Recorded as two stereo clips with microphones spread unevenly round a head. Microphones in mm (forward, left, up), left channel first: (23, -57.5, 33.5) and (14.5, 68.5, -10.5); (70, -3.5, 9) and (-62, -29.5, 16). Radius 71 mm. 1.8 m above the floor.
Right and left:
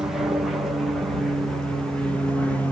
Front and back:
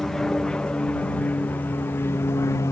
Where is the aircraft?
90° left; by 2.7 s 25° left.